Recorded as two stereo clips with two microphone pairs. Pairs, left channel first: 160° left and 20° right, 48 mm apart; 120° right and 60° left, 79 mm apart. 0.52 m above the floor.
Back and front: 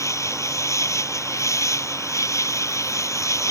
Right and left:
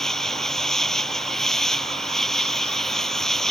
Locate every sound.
0.0 s an insect: 155° left